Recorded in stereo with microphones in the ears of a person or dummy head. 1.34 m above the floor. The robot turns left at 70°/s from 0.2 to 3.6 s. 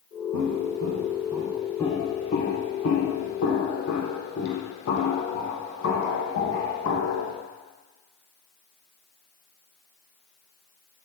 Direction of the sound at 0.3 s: 65° right (ahead or behind).